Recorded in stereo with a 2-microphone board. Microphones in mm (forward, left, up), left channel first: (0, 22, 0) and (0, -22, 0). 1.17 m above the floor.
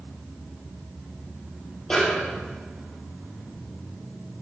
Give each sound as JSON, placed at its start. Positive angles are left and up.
{"t": 1.9, "sound": "a snare drum", "side_deg": 15, "distance_m": 4.0}